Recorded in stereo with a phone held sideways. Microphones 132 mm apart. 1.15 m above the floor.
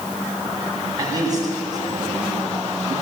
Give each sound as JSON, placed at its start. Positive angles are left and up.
{"t": 1.0, "sound": "a man speaking", "side_deg": -30, "distance_m": 9.0}